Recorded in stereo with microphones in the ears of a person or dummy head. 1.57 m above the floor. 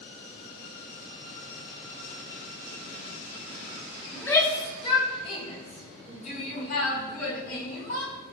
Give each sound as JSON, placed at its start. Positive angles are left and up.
{"t": 4.1, "sound": "a shout", "side_deg": 15, "distance_m": 3.0}